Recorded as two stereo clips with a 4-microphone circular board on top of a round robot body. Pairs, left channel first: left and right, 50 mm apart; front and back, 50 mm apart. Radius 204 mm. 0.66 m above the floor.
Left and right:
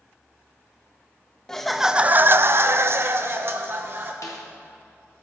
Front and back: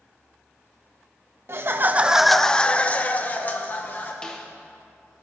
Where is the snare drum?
75° left, 0.7 m.